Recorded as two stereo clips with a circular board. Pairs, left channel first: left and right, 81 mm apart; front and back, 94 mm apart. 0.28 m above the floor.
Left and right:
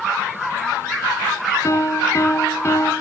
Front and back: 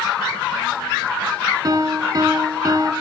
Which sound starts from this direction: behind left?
A piano, at 1.6 s.